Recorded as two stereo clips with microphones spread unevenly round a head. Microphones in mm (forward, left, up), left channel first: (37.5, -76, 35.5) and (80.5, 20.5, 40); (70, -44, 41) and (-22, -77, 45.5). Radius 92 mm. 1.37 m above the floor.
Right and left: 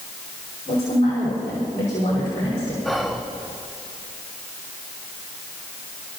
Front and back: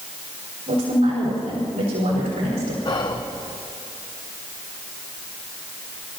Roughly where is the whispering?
Ahead right.